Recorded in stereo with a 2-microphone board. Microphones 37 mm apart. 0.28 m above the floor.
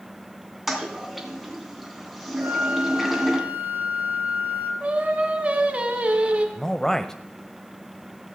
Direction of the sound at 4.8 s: 35° right (ahead or behind).